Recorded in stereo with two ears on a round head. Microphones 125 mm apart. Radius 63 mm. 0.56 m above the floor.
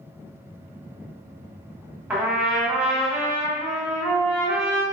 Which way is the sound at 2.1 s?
15° right (ahead or behind).